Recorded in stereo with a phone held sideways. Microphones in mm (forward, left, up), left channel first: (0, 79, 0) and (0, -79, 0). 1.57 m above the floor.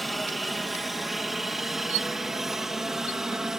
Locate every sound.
0.0 s a helicopter: centre (ahead or behind); by 3.6 s 5° right (ahead or behind)